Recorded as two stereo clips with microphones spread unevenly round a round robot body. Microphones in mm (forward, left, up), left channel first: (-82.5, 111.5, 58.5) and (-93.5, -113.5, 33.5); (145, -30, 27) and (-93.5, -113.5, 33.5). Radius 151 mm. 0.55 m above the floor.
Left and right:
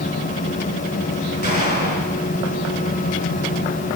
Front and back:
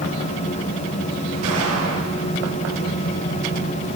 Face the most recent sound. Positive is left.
turn(degrees=130)